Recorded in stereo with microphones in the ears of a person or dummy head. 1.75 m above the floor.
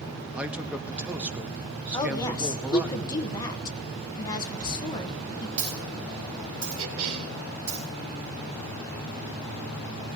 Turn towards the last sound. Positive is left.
turn(degrees=-70)  # may be behind; listen again after turning